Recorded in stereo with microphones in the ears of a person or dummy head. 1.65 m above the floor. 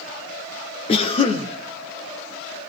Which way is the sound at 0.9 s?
35° left (ahead or behind).